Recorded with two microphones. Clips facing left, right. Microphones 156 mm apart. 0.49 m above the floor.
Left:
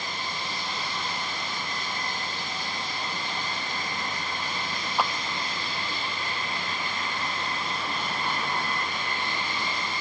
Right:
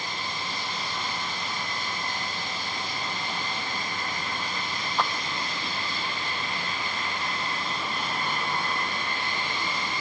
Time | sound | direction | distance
5.0 | a clap | 10° left (ahead or behind) | ?